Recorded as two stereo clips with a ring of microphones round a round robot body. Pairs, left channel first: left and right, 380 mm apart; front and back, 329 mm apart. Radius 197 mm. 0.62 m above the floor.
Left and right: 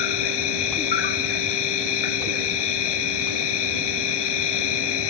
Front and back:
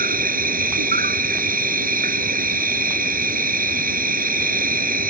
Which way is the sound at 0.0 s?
115° left.